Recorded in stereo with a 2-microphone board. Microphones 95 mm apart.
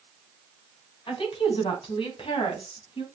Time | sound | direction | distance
1.1 | a woman speaking | 65° left (ahead or behind) | 3.5 m